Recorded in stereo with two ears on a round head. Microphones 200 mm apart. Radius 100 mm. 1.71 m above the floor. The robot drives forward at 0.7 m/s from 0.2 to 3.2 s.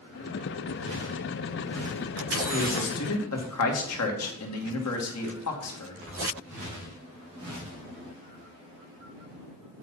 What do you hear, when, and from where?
2.5 s a man speaking: 80° left, 2.5 m; by 6.1 s 85° left, 2.5 m